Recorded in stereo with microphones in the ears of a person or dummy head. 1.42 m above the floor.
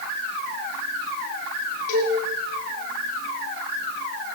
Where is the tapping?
I don't hear tapping.